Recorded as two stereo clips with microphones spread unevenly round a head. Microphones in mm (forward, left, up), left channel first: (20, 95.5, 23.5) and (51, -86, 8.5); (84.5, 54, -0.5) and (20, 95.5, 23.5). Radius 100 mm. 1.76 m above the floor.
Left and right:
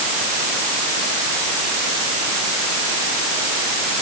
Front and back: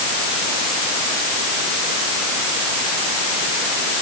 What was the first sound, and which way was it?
Only background noise.